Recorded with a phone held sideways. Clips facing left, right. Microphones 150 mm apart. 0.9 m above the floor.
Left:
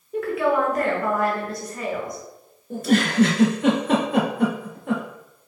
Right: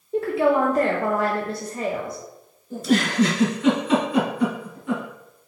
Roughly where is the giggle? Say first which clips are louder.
Left 1 dB; left.